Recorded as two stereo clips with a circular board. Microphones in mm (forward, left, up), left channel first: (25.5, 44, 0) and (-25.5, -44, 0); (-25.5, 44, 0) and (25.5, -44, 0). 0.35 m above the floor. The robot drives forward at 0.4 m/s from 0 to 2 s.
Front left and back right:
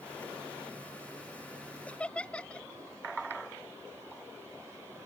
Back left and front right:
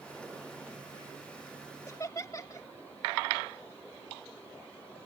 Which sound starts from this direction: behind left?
Laughter, at 1.9 s.